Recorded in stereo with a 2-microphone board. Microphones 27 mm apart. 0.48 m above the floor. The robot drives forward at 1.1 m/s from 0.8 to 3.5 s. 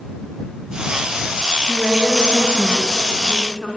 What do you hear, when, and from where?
1.7 s a woman speaking: 15° left (ahead or behind), 3.5 m; by 3.7 s 10° left (ahead or behind), 5.5 m